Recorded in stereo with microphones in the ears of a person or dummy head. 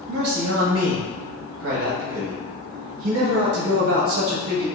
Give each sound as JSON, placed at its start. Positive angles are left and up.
{"t": 0.1, "sound": "a man speaking", "side_deg": -40, "distance_m": 0.6}